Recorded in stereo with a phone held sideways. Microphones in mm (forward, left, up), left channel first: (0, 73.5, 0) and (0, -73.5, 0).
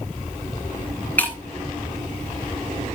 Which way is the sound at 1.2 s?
10° left (ahead or behind).